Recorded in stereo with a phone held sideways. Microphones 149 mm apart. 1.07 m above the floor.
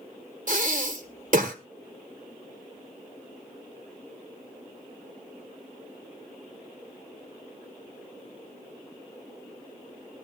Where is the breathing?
60° right (ahead or behind), 1.3 m.